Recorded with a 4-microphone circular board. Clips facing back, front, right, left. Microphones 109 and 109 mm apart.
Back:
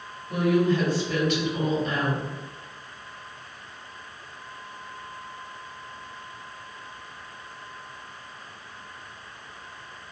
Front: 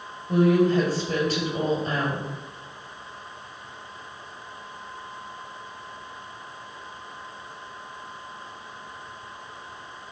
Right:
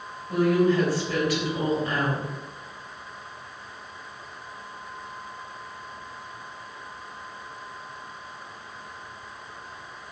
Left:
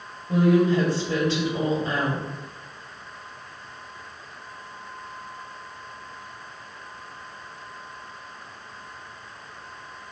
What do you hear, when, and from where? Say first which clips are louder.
0.3 s a woman speaking: front 3 dB, left 2 dB; 35° left, 1.9 m